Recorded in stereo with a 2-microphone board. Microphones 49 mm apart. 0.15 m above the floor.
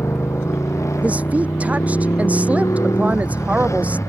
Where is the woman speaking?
30° right (ahead or behind).